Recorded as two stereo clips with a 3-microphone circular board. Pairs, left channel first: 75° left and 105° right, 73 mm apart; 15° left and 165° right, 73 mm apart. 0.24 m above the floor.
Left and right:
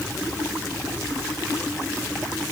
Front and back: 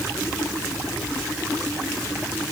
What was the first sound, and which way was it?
Only background noise.